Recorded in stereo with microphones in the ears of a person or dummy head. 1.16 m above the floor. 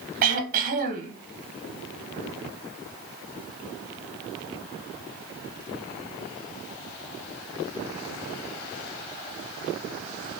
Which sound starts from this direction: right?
Throat clearing, at 0.2 s.